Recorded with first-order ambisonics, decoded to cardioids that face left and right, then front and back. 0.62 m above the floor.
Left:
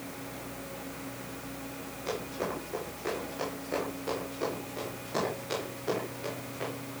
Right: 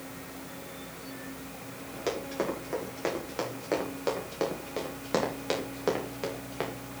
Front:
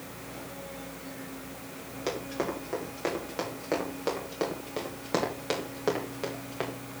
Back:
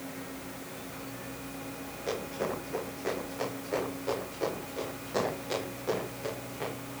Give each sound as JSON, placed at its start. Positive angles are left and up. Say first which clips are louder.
{"t": 2.1, "sound": "running footsteps", "louder": "right 3 dB, front 1 dB", "azimuth_deg": -50, "distance_m": 7.5}